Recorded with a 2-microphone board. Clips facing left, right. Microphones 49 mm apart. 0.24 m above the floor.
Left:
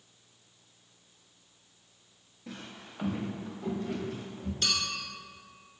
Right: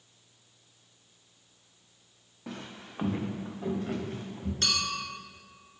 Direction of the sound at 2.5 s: 80° right.